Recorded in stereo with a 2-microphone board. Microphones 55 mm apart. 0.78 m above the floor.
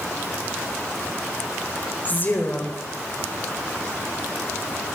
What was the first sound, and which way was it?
A woman speaking, 35° left (ahead or behind).